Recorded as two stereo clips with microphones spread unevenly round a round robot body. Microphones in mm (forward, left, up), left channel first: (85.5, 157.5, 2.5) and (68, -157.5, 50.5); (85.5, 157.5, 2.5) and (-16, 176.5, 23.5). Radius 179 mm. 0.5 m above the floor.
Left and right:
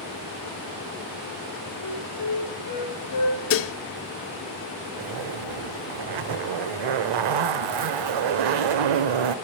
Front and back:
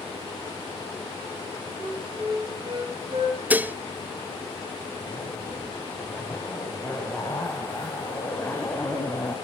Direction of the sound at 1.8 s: 135° left.